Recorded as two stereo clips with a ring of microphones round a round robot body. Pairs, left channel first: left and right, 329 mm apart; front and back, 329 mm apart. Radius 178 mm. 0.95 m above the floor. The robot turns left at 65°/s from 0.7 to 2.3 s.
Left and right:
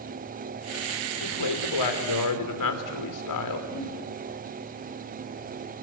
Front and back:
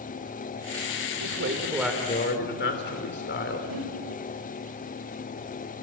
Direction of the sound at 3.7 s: 165° right.